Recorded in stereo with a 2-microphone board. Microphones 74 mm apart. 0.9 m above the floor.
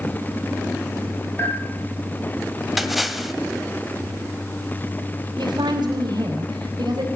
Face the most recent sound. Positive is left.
turn(degrees=-80)